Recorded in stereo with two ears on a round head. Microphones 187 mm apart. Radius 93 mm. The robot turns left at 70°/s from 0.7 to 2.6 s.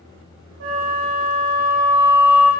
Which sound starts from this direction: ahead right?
A flute, at 0.6 s.